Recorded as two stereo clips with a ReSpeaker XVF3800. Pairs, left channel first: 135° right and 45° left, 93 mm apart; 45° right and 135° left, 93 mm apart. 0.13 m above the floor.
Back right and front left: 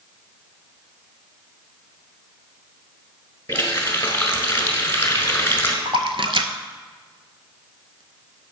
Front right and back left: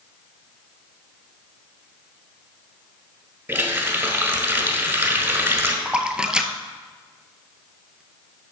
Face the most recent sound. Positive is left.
turn(degrees=55)